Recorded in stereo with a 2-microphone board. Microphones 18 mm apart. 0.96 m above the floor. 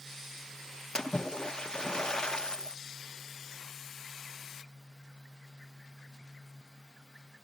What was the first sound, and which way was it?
A splash, 45° left (ahead or behind).